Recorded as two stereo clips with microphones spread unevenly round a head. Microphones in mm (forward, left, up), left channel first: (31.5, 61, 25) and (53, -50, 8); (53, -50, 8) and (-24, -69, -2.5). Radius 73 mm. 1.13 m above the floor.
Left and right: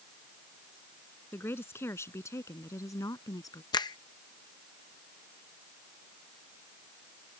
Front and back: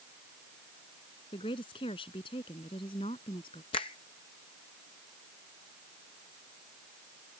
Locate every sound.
1.3 s a woman speaking: 30° left; by 3.6 s 45° left
3.7 s a finger snap: 50° left